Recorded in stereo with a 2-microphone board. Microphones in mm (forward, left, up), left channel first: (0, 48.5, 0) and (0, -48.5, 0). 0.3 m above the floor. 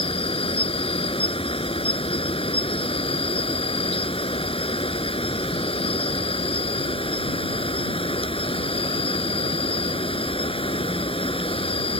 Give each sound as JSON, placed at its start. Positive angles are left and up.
{"t": 0.0, "sound": "an insect", "side_deg": 75}